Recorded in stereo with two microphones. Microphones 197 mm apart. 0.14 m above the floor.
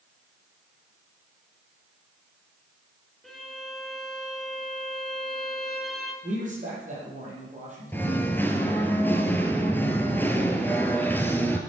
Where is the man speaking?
40° right (ahead or behind), 5.5 m.